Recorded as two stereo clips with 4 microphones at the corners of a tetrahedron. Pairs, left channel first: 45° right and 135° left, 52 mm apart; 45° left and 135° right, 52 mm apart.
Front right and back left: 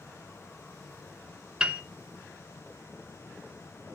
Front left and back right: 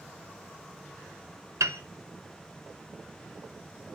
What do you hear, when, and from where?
1.6 s a piano: 150° right, 0.6 m